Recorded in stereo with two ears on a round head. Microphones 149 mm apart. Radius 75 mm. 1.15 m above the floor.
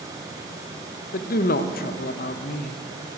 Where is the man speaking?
60° left (ahead or behind), 0.9 m.